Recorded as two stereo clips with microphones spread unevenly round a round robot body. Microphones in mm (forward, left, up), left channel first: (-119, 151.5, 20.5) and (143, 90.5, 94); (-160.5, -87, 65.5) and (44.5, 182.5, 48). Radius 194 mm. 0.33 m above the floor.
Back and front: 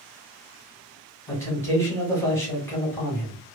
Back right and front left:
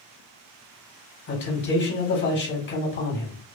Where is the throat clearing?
No throat clearing in this recording.